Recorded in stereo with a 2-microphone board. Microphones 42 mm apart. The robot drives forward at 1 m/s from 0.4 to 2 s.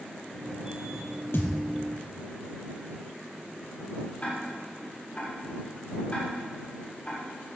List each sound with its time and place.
1.3 s a thud: 80° left, 3.5 m
4.2 s ticking: 30° left (ahead or behind), 8 m